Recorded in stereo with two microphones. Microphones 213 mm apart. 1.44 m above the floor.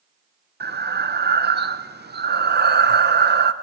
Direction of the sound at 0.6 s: 50° right (ahead or behind).